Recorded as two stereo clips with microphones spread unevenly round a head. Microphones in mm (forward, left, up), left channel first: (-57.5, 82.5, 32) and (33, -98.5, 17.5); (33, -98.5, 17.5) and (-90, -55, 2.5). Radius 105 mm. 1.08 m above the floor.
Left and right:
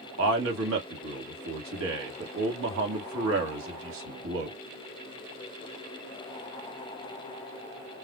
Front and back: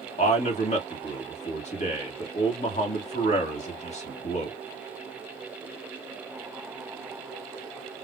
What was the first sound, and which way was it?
A man speaking, 55° right.